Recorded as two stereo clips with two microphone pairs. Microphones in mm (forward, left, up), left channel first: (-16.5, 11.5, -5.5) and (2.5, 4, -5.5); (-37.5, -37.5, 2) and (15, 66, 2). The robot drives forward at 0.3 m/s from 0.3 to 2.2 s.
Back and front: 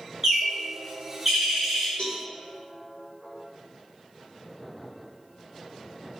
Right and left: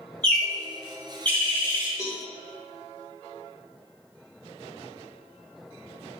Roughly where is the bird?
Ahead right.